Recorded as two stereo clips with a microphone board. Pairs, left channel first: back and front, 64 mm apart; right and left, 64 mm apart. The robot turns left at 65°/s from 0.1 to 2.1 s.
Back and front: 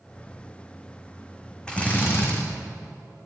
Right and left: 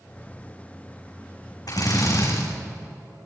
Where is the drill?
105° right, 5.5 m; by 2.4 s 130° right, 5.5 m.